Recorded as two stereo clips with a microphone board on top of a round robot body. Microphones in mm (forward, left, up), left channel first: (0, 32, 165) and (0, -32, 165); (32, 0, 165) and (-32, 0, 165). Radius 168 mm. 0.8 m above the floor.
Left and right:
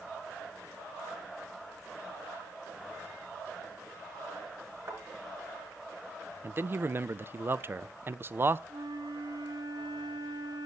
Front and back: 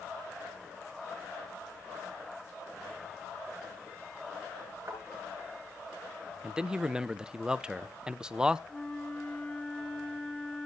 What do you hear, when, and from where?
4.9 s a thud: 125° right, 7.5 m
6.4 s a man speaking: 110° right, 0.7 m
8.7 s a flute: 75° right, 1.3 m